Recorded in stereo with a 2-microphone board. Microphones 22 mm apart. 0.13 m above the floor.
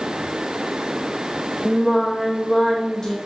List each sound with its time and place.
1.6 s singing: 20° left (ahead or behind), 2.5 m